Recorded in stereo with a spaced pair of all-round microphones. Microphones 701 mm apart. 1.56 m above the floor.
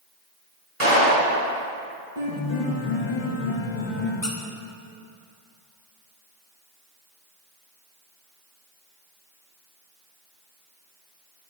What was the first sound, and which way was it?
A clap, 45° right (ahead or behind).